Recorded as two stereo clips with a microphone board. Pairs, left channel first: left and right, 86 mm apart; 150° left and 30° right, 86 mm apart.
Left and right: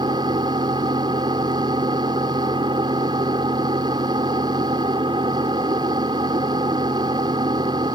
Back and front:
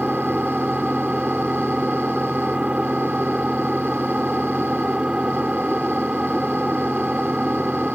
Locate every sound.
0.0 s an engine running: 105° right